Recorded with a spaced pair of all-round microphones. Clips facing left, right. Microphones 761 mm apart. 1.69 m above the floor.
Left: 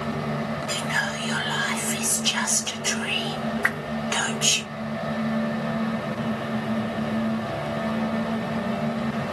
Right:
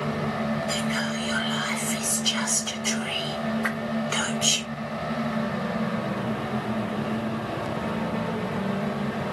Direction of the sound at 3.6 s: 55° left (ahead or behind).